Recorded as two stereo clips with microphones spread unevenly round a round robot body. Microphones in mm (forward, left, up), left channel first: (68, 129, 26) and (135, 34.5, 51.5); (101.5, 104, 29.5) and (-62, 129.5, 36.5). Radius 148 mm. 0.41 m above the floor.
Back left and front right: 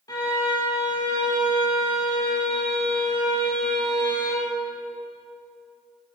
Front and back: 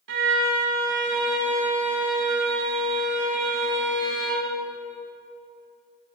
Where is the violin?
160° right, 1.1 m.